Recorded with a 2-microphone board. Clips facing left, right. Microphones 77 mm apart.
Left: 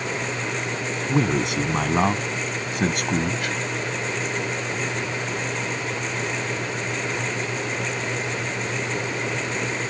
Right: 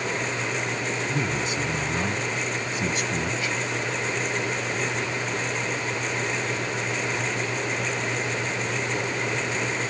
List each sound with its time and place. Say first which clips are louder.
1.1 s a man speaking: left 5 dB; 65° left (ahead or behind); by 3.5 s 55° left (ahead or behind)